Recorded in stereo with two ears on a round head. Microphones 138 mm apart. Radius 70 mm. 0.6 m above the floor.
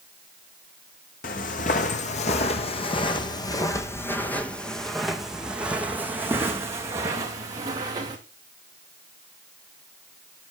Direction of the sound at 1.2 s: 60° left (ahead or behind).